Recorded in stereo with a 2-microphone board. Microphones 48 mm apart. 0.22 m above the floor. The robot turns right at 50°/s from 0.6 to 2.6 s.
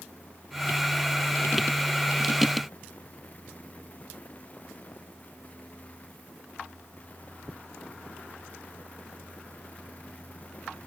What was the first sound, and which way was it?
Only background noise.